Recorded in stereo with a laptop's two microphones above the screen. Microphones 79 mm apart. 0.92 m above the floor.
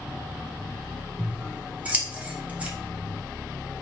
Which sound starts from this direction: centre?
Scissors, at 1.2 s.